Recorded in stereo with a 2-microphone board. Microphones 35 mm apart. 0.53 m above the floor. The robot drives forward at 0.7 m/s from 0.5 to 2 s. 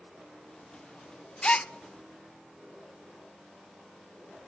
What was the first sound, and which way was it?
A gasp, 30° left (ahead or behind).